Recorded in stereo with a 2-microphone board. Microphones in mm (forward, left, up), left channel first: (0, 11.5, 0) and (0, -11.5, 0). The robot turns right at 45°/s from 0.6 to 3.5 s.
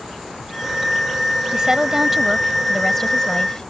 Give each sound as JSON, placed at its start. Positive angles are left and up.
{"t": 1.5, "sound": "a woman speaking", "azimuth_deg": -45}